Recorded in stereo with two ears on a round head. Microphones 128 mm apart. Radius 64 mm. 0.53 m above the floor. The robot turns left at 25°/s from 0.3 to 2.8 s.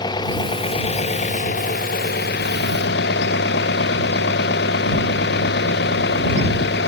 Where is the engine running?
150° left; by 6.9 s 85° left.